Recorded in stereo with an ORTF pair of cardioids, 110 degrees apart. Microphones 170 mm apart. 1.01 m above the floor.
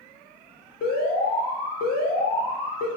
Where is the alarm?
65° left, 0.7 m.